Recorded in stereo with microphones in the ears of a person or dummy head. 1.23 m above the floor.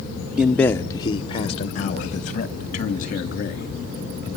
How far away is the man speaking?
About 0.7 m.